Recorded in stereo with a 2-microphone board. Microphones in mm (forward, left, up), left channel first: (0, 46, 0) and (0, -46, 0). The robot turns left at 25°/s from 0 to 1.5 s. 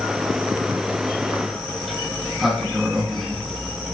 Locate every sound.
1.8 s a sliding door: centre (ahead or behind), 0.9 m